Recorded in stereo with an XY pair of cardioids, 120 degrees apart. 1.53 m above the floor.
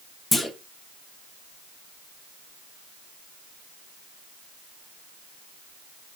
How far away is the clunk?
About 0.8 m.